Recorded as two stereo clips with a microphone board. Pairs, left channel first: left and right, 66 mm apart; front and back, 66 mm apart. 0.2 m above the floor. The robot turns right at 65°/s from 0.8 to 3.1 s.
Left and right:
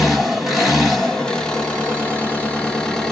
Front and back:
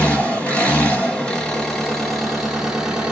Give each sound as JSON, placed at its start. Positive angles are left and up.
{"t": 0.0, "sound": "an engine running", "azimuth_deg": 0, "distance_m": 1.0}